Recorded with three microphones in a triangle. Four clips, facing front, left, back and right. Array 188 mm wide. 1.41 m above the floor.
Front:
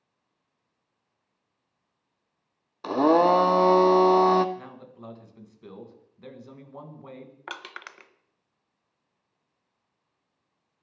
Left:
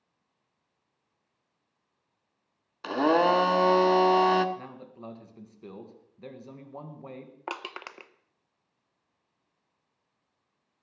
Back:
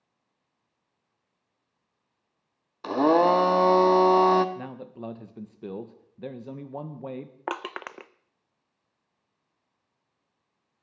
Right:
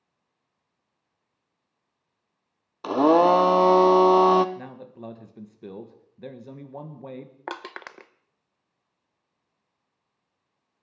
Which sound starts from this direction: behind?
Crushing, at 7.5 s.